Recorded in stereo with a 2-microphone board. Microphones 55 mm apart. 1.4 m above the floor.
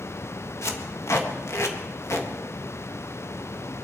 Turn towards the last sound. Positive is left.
turn(degrees=60)  # may be behind; listen again after turning